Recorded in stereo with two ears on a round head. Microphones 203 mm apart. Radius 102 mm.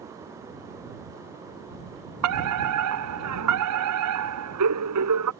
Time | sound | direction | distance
2.2 | a fire alarm | 80° right | ?